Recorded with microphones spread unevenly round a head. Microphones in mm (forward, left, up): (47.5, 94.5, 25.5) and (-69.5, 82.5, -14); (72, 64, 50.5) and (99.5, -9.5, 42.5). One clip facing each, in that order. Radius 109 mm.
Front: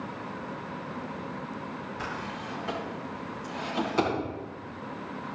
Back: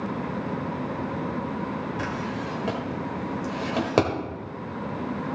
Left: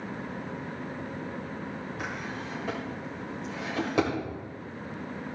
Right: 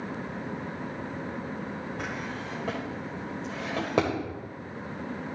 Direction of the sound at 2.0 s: 145° right.